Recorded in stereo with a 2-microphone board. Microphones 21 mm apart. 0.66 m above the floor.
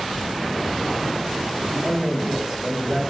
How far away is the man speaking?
About 1.9 m.